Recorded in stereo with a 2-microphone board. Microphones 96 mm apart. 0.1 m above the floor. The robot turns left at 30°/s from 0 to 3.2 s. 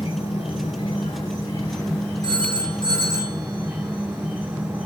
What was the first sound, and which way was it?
An insect, 90° left.